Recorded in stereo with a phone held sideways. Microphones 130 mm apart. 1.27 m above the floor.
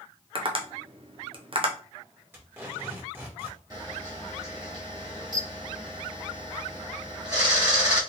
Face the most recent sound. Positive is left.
turn(degrees=-30)  # may be behind; listen again after turning